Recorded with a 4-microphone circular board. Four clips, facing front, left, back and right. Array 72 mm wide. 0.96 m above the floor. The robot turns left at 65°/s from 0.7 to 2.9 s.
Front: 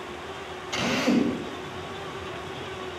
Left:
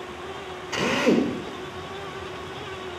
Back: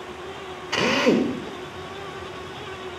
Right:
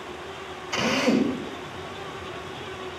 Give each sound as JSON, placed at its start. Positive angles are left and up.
{"t": 0.7, "sound": "a drill", "azimuth_deg": 170, "distance_m": 2.0}